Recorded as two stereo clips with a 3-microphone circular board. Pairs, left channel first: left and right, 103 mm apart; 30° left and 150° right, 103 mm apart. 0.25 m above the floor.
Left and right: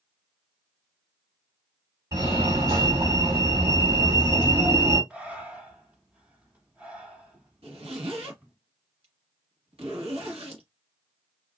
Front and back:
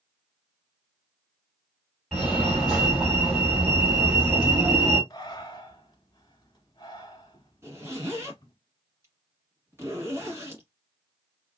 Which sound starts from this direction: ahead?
Breathing, at 5.1 s.